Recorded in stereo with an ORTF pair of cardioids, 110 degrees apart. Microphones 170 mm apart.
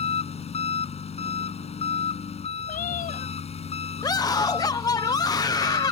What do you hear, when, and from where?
0.0 s an engine running: 40° left
2.7 s a cat meowing: 50° left
4.0 s a scream: 20° left